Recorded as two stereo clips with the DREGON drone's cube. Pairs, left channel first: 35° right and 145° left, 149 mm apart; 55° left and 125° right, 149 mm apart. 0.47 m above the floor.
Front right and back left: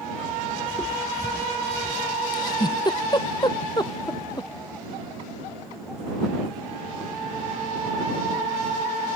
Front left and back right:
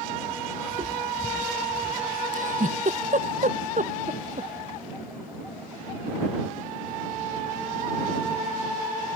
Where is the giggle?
95° right.